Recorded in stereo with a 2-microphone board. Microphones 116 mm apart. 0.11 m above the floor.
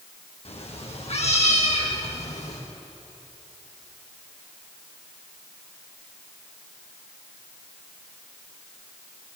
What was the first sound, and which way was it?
A cat meowing, 65° left (ahead or behind).